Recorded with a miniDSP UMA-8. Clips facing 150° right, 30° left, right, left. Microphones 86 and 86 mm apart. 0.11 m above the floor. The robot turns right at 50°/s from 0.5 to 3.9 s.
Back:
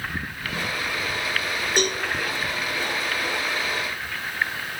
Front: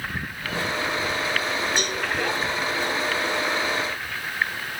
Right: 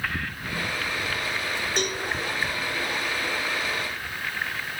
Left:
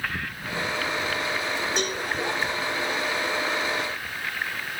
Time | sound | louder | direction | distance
1.8 | a cowbell | back 3 dB, even | straight behind | 2 m